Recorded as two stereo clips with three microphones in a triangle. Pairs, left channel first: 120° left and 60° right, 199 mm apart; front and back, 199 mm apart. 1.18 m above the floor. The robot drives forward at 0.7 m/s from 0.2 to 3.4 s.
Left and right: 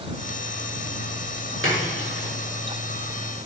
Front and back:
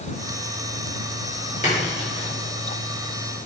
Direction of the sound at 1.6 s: 50° right.